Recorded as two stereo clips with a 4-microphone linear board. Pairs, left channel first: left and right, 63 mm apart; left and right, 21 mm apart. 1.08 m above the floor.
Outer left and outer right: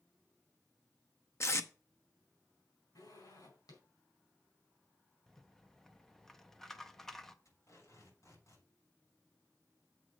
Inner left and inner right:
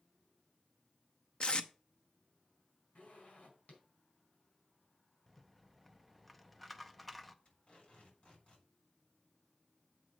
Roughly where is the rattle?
Centre.